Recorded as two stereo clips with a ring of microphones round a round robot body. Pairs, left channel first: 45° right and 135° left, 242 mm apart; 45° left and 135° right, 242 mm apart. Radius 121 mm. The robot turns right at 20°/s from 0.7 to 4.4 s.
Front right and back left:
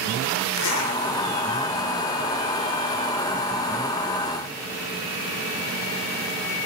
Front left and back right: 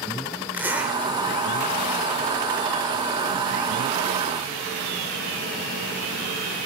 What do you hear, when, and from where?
0.5 s a zipper: 55° right, 4 m; by 1.0 s 45° right, 4 m